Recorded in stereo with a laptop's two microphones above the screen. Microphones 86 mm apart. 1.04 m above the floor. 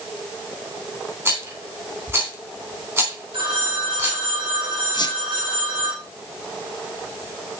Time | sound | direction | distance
1.2 | a rattle | 35° right (ahead or behind) | 3 m
3.3 | a phone ringing | 75° right (ahead or behind) | 2.5 m
4.9 | a squeak | 55° left (ahead or behind) | 1.6 m